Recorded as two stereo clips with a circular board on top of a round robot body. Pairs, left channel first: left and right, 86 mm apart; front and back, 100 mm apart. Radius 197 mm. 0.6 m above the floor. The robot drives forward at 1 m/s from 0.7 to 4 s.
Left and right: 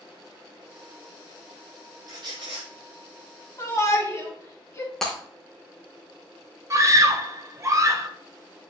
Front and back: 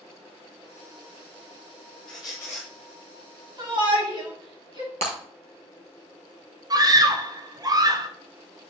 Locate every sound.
2.1 s a squeak: 45° right, 1.1 m; by 2.7 s 90° right, 0.9 m
3.6 s a shout: 140° left, 3 m; by 4.9 s 145° left, 3.5 m
5.0 s breaking glass: 175° left, 0.8 m
6.7 s a scream: 135° right, 1.1 m